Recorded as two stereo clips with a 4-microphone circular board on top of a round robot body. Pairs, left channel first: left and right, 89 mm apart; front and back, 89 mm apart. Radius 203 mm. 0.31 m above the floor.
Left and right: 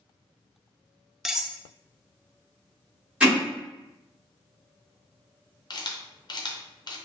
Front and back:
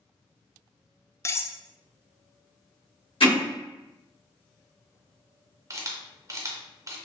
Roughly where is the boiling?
No boiling in this recording.